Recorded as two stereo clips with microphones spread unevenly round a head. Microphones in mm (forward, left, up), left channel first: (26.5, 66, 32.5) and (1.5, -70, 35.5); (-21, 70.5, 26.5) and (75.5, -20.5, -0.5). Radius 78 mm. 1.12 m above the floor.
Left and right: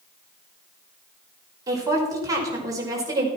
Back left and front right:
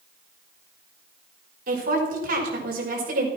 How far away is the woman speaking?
About 5 m.